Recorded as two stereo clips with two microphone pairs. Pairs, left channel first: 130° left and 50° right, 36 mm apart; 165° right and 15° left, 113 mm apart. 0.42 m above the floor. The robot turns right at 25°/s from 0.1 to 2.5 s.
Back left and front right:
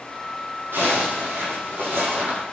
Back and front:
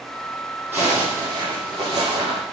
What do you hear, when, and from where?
0.7 s a zipper: 60° right, 6.5 m; by 2.4 s 15° right, 6.5 m